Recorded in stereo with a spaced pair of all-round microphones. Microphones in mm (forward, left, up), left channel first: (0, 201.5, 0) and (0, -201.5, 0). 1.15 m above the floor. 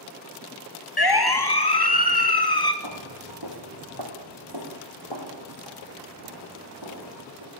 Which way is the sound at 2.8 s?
65° right (ahead or behind).